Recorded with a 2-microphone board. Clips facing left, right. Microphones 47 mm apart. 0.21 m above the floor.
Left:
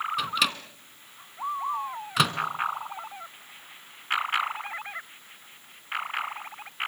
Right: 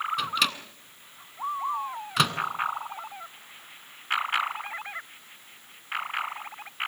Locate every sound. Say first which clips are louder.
0.2 s a microwave: even; centre (ahead or behind), 1.8 m